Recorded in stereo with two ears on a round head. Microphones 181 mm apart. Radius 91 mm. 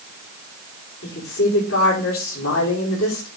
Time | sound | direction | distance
1.0 | a woman speaking | 70° left (ahead or behind) | 4 m